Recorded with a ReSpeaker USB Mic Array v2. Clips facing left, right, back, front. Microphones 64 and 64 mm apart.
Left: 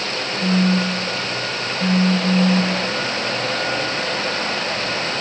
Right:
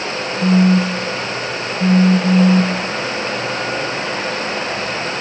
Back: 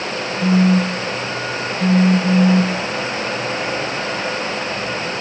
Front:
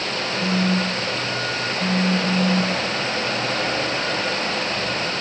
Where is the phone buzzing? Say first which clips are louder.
Right 5 dB, back 7 dB; 130° right, 0.5 m.